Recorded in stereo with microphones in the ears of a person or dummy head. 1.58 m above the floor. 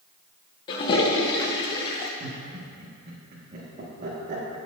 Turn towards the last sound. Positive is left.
turn(degrees=-45)  # may be behind; listen again after turning